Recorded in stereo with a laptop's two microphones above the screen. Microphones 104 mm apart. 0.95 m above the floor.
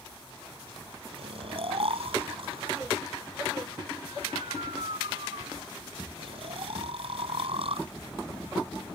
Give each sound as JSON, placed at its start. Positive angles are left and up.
{"t": 1.1, "sound": "snoring", "side_deg": -70}